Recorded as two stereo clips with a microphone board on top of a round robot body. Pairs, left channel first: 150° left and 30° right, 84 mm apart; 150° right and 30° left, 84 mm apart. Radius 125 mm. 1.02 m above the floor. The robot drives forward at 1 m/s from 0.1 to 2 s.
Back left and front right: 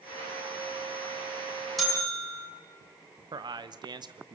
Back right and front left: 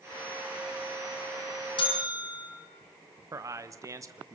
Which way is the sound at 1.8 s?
125° right.